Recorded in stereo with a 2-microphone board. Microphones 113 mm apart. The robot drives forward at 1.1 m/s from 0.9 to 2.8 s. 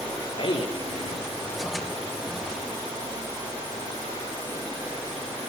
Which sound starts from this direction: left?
A man speaking, at 0.4 s.